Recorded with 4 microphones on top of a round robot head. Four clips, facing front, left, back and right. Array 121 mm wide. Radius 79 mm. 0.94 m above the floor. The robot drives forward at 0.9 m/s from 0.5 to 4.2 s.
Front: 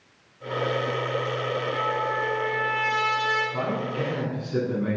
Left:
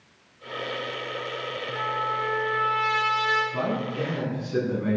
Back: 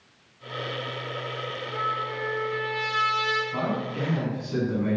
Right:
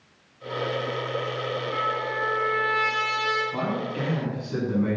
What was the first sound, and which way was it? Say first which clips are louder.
A trumpet: left 3 dB, even; 90° right.